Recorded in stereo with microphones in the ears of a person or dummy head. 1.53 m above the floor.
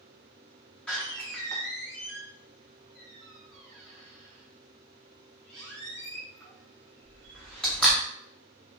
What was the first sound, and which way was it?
A door slam, 10° left (ahead or behind).